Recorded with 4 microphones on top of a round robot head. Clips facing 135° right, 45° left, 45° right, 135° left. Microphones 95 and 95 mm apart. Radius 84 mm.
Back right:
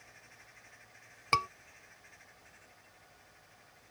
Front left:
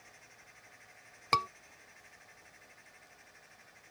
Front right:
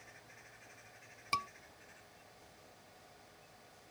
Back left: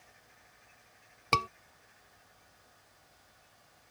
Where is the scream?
130° left.